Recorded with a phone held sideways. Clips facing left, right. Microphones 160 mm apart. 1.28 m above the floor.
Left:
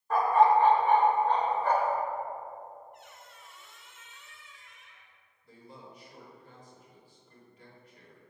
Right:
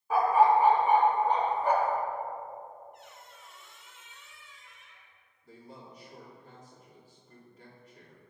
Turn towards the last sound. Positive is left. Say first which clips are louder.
# right 1 dB
turn(degrees=-45)  # may be behind; listen again after turning